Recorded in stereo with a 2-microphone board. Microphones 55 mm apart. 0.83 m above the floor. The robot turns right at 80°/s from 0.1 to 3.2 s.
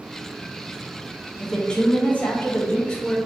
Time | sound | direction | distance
1.4 | a woman speaking | 5° left (ahead or behind) | 0.6 m